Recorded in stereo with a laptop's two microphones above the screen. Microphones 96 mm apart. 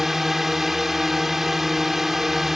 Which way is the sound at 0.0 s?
Centre (ahead or behind).